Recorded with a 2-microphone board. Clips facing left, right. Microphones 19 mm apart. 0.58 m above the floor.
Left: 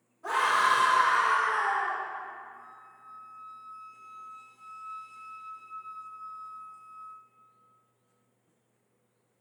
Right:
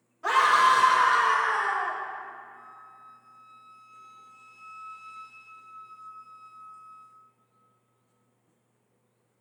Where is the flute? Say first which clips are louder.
Right 2 dB; 20° right (ahead or behind), 0.8 m.